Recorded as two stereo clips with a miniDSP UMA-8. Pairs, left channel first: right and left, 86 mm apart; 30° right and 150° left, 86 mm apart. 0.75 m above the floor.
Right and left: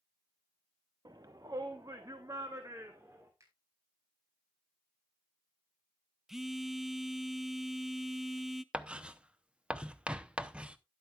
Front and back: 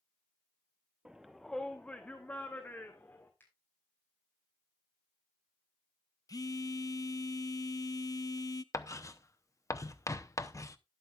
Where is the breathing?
I don't hear breathing.